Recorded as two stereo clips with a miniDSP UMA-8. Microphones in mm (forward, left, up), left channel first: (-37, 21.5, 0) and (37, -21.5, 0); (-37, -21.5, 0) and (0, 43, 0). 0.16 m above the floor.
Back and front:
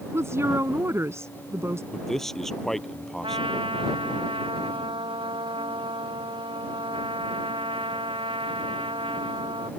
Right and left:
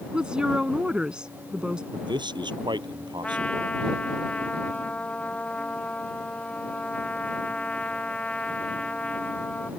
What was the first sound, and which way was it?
A woman speaking, 10° right.